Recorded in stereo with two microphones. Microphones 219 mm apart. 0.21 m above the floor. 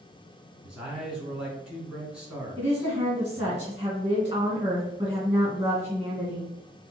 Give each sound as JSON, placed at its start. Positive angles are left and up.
{"t": 0.6, "sound": "a man speaking", "side_deg": -5, "distance_m": 2.5}
{"t": 2.6, "sound": "a woman speaking", "side_deg": -15, "distance_m": 1.8}